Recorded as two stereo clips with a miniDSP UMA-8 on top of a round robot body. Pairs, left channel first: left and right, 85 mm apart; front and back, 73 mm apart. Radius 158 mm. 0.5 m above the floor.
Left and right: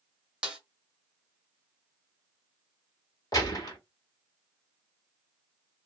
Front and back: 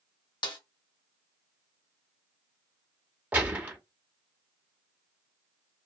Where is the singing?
No singing in this recording.